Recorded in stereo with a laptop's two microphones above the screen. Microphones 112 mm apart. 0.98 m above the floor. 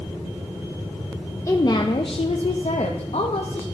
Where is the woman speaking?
25° left (ahead or behind), 0.6 m; by 3.6 s 70° left (ahead or behind), 1.2 m.